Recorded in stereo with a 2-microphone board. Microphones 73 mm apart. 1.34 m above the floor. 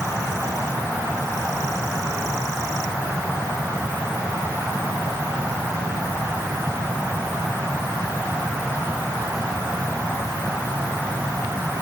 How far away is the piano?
I don't hear a piano.